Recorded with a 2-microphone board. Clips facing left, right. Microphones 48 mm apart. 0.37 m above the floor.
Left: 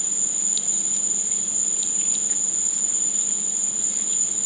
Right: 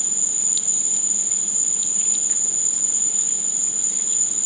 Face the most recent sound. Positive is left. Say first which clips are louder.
# even
turn(degrees=-55)  # may be behind; listen again after turning